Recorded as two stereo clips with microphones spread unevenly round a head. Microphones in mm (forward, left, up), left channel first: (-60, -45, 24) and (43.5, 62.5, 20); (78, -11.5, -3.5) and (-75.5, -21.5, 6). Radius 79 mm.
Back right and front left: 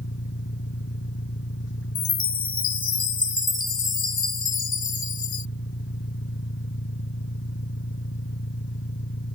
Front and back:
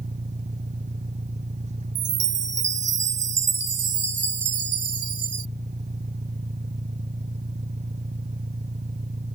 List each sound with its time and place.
0.0 s an engine running: 130° right
1.9 s a chime: 170° right